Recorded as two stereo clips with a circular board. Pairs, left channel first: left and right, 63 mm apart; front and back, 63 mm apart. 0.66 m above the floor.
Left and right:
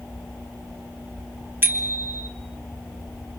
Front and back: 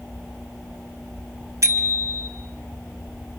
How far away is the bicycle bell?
About 3 m.